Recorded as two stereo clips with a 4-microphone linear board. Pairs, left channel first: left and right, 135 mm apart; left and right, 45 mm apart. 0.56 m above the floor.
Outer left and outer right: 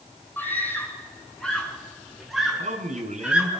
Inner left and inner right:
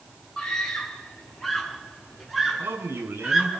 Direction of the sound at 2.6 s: 65° right (ahead or behind).